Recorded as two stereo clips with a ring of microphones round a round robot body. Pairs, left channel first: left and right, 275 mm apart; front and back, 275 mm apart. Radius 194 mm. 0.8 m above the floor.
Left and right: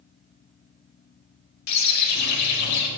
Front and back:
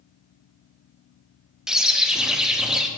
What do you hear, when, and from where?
1.7 s a bird: 90° left, 0.8 m